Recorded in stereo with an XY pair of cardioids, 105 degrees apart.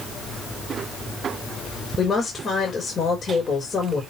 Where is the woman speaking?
35° left, 4.5 m.